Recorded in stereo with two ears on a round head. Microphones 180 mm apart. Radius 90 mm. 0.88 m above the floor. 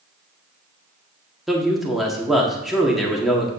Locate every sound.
1.5 s a man speaking: centre (ahead or behind), 1.7 m